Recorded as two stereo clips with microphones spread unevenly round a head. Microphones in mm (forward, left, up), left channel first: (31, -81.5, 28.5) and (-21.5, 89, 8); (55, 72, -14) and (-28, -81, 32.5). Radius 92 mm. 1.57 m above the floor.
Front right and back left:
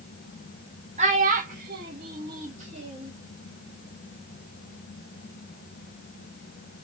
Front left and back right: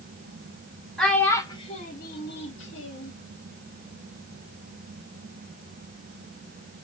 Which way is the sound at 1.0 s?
160° left.